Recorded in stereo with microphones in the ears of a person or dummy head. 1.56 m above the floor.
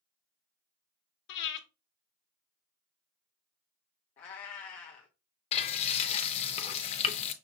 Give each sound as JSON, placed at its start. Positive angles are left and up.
{"t": 1.3, "sound": "breathing", "side_deg": 60, "distance_m": 0.9}
{"t": 4.2, "sound": "a cat meowing", "side_deg": 15, "distance_m": 0.8}
{"t": 5.5, "sound": "frying", "side_deg": 30, "distance_m": 0.6}